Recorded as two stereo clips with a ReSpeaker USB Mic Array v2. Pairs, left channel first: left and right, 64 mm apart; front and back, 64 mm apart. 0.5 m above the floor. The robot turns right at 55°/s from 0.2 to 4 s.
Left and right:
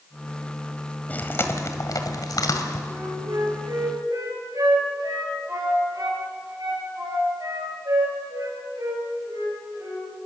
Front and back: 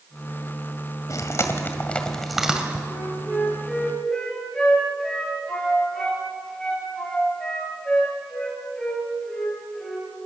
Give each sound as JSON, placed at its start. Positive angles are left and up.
{"t": 1.1, "sound": "chewing", "azimuth_deg": 25, "distance_m": 1.9}
{"t": 2.9, "sound": "a flute", "azimuth_deg": -135, "distance_m": 6.5}